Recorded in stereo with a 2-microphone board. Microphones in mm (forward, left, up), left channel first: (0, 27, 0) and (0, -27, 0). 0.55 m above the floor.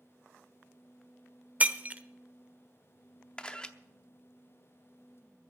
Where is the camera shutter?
15° left (ahead or behind), 0.7 m.